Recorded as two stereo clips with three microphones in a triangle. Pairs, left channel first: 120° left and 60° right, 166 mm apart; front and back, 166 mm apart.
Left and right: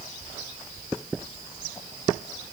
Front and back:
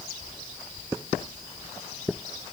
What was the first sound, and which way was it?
Only background noise.